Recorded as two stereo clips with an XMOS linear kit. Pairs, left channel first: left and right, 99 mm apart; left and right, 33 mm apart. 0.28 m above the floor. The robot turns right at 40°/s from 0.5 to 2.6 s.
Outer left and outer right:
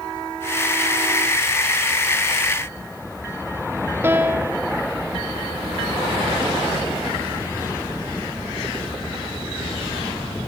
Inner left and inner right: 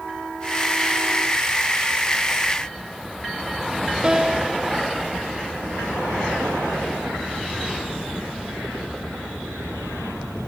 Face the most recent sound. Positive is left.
turn(degrees=-25)  # may be behind; listen again after turning